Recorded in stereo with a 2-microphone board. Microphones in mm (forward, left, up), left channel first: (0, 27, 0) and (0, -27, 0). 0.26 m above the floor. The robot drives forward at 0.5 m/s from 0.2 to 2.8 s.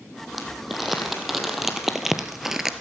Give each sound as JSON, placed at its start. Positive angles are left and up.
{"t": 0.3, "sound": "crumpling", "side_deg": -5, "distance_m": 2.0}